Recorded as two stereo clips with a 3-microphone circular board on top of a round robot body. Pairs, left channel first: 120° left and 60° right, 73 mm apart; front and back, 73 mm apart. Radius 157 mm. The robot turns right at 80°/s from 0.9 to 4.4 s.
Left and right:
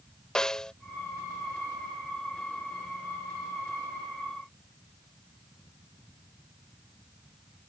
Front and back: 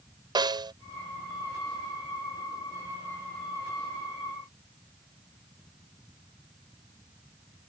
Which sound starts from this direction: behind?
A snare drum, at 0.3 s.